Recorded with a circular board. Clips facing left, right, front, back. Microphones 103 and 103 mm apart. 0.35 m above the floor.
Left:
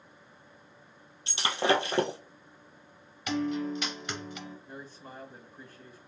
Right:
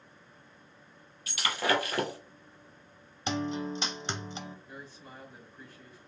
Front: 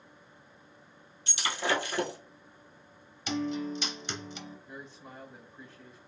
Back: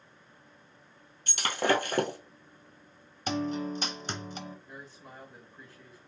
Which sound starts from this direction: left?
A man speaking, at 4.7 s.